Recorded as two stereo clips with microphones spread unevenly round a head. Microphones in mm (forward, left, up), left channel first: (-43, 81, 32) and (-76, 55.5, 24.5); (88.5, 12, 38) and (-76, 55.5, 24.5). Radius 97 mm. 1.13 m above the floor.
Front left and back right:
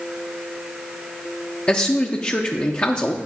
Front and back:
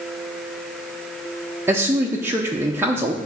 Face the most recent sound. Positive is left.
turn(degrees=100)